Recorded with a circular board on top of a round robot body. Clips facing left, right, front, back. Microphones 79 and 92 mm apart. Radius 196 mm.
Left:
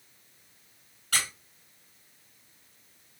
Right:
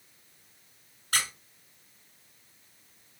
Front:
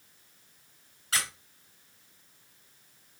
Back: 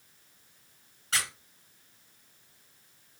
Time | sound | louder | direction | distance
1.1 | a squeak | even, even | 85° left | 2.5 m